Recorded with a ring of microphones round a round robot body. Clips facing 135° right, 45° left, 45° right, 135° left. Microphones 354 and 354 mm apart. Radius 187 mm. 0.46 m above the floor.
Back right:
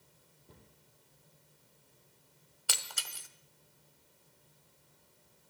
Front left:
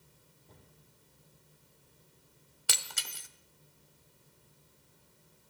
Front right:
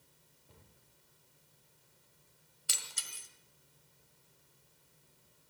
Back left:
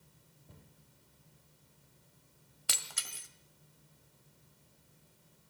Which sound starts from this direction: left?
Breaking glass, at 2.7 s.